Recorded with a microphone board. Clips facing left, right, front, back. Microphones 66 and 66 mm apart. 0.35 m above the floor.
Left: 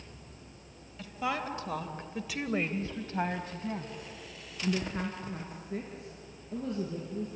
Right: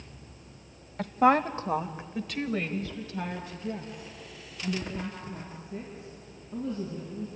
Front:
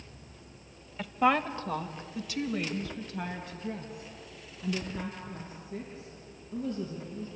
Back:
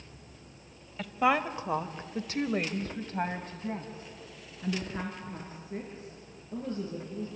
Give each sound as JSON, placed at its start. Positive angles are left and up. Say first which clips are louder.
{"t": 1.0, "sound": "a woman speaking", "louder": "right 12 dB, front 1 dB", "azimuth_deg": -85, "distance_m": 1.4}